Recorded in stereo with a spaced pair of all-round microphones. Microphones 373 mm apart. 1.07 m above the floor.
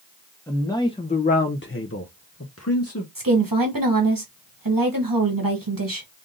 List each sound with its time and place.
0.5 s a man speaking: 5° left (ahead or behind), 1.0 m; by 3.0 s 40° left (ahead or behind), 1.1 m
3.1 s a woman speaking: 60° right (ahead or behind), 1.1 m